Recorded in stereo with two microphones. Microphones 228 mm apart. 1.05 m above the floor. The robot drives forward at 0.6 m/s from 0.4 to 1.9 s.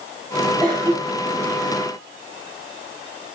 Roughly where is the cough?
Right.